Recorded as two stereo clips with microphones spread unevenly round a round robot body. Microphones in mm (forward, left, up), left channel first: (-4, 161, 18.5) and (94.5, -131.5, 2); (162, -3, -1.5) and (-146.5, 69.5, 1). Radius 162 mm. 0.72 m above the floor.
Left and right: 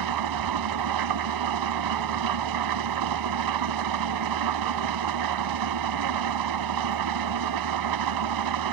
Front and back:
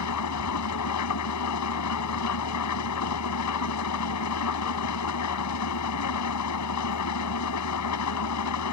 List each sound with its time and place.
0.0 s an engine running: 55° right